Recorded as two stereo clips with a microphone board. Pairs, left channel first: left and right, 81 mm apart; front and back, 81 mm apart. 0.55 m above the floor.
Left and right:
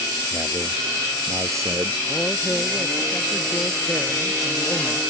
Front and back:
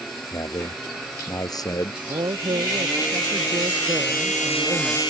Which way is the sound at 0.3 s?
40° right.